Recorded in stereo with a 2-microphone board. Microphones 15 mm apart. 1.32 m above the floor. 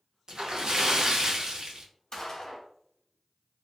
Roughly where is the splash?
Right.